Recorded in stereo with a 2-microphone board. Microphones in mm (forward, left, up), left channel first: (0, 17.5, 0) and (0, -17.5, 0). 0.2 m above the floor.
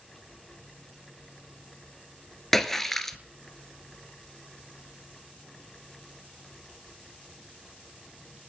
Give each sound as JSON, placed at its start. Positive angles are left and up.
{"t": 2.5, "sound": "a splash", "side_deg": 10, "distance_m": 1.1}